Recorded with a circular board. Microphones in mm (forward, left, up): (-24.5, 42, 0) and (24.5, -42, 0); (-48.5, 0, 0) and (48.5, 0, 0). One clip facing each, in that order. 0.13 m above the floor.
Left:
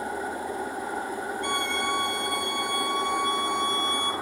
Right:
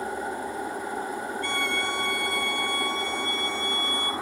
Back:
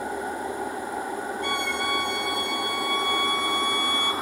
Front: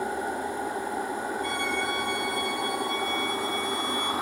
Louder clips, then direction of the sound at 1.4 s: Left 2 dB, back 3 dB; 170° right.